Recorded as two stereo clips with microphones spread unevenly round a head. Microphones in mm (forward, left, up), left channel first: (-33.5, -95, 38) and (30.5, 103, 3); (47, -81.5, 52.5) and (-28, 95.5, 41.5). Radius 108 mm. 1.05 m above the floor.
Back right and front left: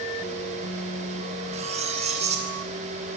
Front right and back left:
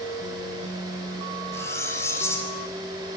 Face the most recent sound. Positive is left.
turn(degrees=10)